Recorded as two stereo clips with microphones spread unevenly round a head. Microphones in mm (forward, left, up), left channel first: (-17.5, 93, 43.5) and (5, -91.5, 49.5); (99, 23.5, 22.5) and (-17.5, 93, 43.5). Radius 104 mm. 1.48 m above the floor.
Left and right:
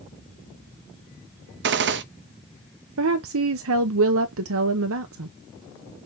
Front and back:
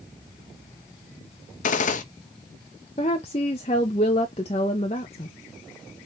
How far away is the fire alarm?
I don't hear a fire alarm.